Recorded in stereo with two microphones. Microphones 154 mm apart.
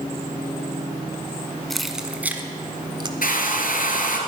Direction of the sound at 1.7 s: Centre (ahead or behind).